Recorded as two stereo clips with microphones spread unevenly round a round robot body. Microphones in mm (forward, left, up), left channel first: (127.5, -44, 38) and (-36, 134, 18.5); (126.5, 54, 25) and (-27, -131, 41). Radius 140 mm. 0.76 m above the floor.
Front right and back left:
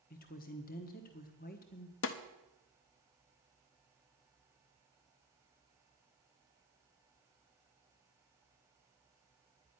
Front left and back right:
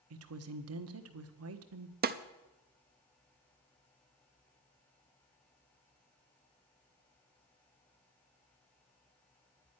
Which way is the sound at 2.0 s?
80° right.